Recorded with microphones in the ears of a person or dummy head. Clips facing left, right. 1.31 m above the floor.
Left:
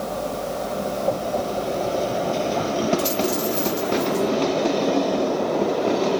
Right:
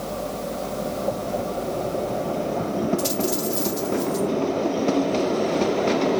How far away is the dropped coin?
About 2 m.